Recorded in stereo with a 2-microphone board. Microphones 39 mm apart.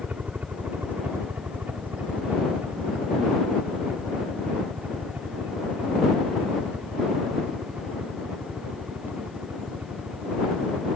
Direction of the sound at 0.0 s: 50° right (ahead or behind).